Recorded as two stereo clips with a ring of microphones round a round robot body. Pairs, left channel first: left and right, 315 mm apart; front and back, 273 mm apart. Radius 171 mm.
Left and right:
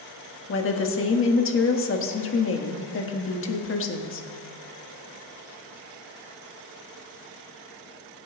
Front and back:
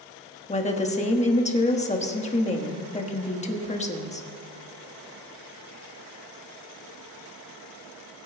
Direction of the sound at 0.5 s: 60° left.